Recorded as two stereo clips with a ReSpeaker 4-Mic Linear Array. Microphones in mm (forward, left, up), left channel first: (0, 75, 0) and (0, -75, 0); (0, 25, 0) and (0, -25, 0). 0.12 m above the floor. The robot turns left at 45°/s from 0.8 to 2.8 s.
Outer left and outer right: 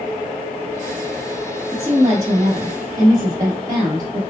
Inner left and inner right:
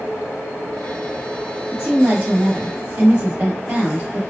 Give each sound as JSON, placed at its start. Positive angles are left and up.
{"t": 1.7, "sound": "a woman speaking", "side_deg": -20, "distance_m": 1.2}